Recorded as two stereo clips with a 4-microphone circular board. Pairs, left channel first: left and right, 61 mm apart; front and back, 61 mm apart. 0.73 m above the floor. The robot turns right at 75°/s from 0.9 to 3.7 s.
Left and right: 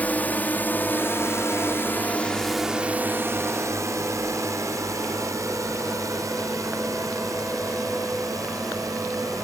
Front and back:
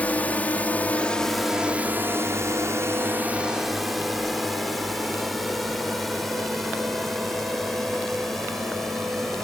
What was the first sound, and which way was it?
A drone, 50° left.